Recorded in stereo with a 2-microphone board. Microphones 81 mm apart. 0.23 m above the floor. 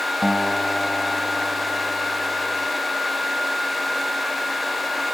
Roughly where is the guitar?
Centre.